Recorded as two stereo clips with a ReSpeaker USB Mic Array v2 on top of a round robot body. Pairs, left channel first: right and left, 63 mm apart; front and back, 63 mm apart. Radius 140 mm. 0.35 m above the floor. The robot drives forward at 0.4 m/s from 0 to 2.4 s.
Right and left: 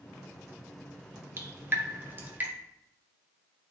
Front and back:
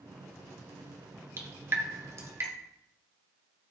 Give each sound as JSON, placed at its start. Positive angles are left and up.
{"t": 1.4, "sound": "dripping", "azimuth_deg": 135, "distance_m": 1.5}